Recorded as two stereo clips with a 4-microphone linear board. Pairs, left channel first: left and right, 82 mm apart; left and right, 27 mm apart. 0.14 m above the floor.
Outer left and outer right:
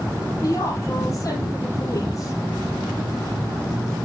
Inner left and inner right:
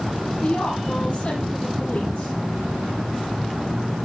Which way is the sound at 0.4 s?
45° left (ahead or behind).